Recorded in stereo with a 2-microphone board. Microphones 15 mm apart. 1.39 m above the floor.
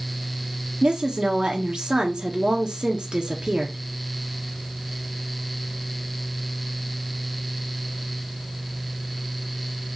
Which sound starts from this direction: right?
A woman speaking, at 0.8 s.